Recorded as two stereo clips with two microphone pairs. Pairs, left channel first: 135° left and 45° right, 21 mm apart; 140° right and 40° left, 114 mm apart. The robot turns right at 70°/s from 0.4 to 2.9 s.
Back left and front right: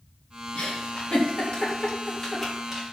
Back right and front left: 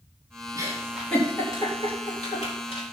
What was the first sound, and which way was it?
A giggle, 95° left.